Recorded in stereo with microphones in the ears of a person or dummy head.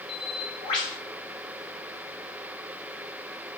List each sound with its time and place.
0.1 s a bird: 25° left (ahead or behind), 0.9 m